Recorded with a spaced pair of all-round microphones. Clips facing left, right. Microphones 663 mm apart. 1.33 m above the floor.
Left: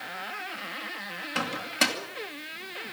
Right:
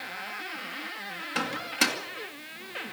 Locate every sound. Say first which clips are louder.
1.4 s a microwave: even; 10° left (ahead or behind), 2.5 m